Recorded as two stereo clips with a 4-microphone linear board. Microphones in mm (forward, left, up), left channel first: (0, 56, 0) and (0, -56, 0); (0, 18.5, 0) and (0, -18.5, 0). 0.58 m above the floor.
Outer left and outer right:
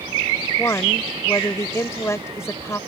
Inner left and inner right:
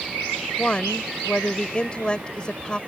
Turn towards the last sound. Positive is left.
turn(degrees=30)  # may be behind; listen again after turning